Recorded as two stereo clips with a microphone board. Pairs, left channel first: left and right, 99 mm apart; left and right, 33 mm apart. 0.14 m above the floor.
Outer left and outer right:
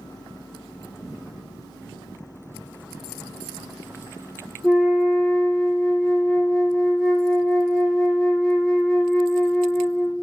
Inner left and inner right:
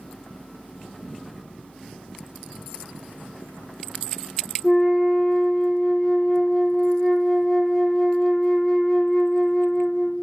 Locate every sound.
4.6 s a flute: 5° left (ahead or behind), 1.2 m